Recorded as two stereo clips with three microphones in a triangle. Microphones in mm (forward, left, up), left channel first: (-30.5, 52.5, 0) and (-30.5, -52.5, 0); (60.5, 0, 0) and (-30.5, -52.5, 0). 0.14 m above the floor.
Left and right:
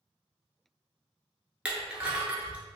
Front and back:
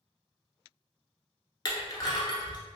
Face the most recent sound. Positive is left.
turn(degrees=-15)